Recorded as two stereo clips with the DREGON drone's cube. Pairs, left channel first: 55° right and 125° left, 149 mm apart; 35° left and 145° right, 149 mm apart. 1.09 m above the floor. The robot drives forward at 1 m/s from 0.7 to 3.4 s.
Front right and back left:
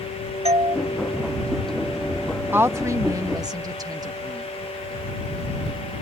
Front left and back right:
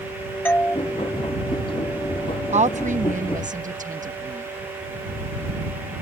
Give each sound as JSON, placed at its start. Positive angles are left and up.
{"t": 0.5, "sound": "a doorbell", "azimuth_deg": 105}
{"t": 2.5, "sound": "a woman speaking", "azimuth_deg": -165}